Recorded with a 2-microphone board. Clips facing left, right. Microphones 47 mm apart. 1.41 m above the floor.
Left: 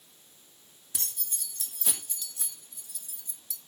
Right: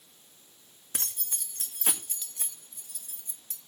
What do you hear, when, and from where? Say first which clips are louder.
0.9 s keys jangling: right 2 dB; 55° right (ahead or behind), 1.9 m